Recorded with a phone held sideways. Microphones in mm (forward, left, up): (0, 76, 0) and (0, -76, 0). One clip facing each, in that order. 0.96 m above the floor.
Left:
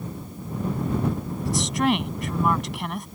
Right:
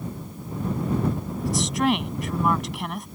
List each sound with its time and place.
1.4 s a woman speaking: centre (ahead or behind)